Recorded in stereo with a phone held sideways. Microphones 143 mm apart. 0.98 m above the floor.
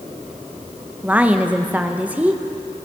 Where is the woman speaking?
10° right (ahead or behind), 0.8 m.